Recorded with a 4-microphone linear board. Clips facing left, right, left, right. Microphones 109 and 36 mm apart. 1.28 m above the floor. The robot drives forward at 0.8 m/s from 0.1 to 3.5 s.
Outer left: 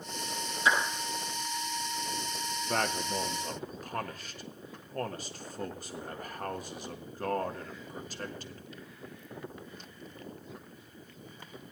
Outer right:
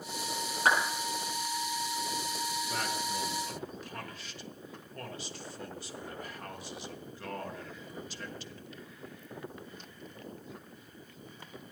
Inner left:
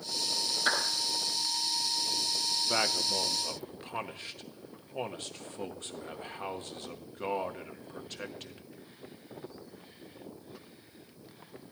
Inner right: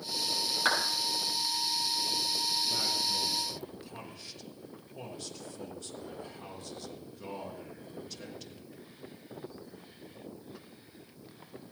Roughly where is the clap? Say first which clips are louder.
Even, inner right 1 dB; right.